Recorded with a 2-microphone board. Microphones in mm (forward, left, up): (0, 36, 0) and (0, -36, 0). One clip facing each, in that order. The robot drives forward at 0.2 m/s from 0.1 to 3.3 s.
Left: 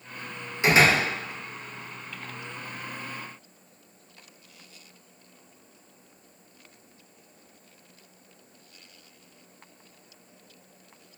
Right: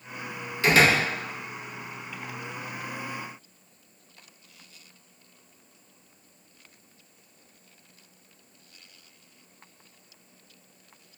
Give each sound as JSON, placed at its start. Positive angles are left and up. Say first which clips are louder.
{"t": 0.6, "sound": "a door slam", "louder": "even", "side_deg": 20, "distance_m": 0.6}